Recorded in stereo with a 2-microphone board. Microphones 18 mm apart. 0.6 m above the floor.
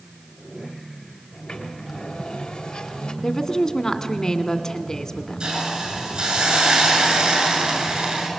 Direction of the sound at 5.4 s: 40° right (ahead or behind).